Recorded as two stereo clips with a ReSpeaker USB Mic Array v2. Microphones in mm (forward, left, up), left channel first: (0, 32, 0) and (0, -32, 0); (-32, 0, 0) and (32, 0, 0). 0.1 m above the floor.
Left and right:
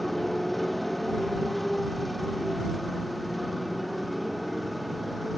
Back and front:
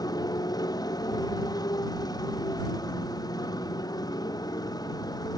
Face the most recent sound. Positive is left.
turn(degrees=180)